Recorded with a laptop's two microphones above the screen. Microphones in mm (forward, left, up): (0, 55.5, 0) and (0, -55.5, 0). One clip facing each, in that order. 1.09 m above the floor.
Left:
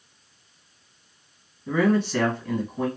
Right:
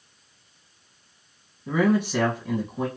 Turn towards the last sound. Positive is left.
turn(degrees=-15)  # may be behind; listen again after turning